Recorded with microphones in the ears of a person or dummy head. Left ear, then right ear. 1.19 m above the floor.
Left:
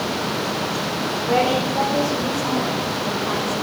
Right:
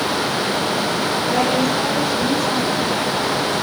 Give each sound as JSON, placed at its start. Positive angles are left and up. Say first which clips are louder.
{"t": 1.3, "sound": "a woman speaking", "louder": "left 1 dB", "side_deg": 85, "distance_m": 5.0}